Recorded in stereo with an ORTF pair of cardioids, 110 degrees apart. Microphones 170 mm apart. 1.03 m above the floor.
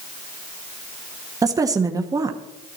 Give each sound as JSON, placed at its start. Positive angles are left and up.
{"t": 1.4, "sound": "a woman speaking", "azimuth_deg": -20, "distance_m": 1.2}